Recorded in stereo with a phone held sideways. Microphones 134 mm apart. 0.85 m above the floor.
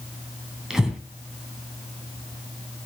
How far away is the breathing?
About 2.5 m.